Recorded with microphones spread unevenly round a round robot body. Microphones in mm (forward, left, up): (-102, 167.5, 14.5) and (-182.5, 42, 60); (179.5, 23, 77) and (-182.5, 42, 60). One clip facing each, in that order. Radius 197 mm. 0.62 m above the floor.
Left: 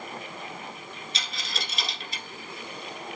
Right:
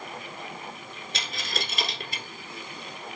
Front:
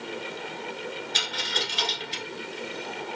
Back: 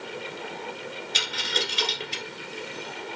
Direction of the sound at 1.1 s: 130° right.